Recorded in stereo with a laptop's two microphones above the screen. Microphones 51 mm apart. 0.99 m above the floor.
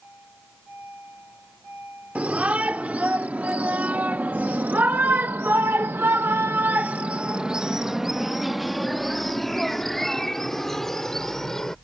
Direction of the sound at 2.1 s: 25° right (ahead or behind).